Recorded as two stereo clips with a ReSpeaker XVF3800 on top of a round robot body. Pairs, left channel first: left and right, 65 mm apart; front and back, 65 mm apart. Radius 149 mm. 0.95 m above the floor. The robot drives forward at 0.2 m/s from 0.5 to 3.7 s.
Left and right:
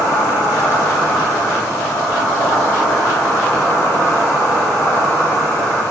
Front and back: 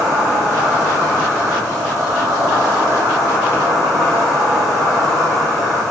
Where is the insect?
105° left, 0.8 m; by 5.9 s 140° left, 1.2 m.